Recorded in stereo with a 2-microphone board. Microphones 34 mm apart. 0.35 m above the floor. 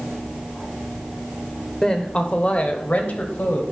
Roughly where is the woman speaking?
Centre.